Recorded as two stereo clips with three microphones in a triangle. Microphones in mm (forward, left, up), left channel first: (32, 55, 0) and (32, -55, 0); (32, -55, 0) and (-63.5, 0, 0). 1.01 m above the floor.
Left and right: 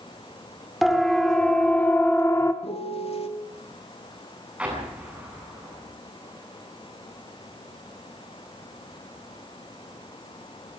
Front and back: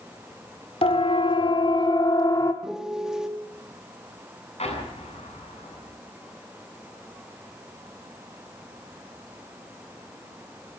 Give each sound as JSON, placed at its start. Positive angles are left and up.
{"t": 0.8, "sound": "a siren", "azimuth_deg": 0, "distance_m": 3.0}
{"t": 2.6, "sound": "a piano", "azimuth_deg": 65, "distance_m": 2.0}
{"t": 4.6, "sound": "an explosion", "azimuth_deg": -10, "distance_m": 9.0}